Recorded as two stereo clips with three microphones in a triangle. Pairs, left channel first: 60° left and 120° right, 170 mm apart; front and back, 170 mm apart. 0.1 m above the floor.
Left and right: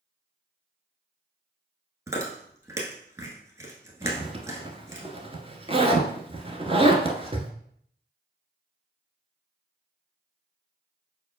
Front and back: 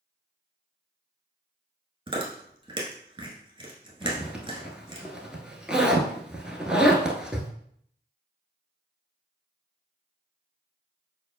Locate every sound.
2.1 s chewing: 170° right, 1.0 m
4.0 s a zipper: 100° right, 0.7 m